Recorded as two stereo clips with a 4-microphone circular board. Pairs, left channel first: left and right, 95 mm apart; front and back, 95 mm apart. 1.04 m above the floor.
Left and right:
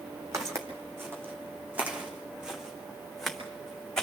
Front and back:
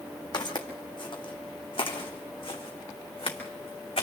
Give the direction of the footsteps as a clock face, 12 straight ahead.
1 o'clock.